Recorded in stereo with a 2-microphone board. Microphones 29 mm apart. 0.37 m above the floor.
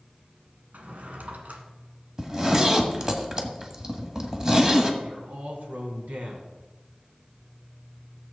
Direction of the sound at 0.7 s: 70° right (ahead or behind).